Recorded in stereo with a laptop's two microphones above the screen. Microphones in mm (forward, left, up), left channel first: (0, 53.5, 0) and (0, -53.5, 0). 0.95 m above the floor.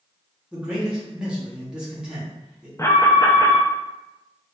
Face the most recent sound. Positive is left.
turn(degrees=25)  # may be behind; listen again after turning